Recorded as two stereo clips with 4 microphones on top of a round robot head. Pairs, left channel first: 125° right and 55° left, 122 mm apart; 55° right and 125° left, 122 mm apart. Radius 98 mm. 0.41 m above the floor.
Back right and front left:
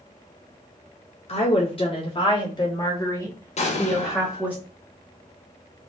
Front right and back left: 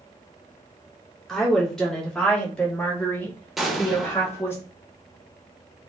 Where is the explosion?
145° right, 0.9 m.